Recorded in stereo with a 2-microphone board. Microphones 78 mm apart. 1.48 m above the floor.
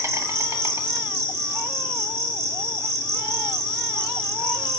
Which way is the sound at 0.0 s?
40° right (ahead or behind).